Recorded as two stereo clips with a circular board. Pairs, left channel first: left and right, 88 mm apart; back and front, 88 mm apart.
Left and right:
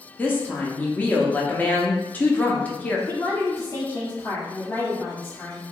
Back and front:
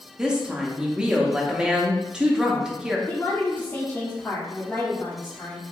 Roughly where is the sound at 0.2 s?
Ahead left.